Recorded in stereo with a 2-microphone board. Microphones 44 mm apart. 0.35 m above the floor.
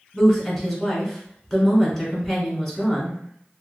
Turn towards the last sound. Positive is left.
turn(degrees=10)  # may be behind; listen again after turning